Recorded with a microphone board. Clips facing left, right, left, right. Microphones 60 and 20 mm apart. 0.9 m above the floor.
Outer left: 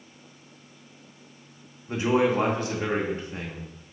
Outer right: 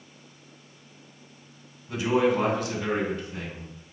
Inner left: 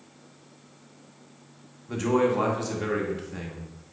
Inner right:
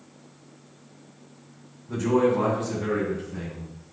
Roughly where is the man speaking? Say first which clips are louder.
Even, inner right 2 dB; left.